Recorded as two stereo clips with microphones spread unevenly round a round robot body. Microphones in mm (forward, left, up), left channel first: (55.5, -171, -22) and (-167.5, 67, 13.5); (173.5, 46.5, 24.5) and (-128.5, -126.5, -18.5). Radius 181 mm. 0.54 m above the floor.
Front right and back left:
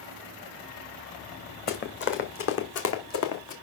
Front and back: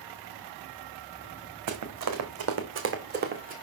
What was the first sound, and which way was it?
Running footsteps, 110° right.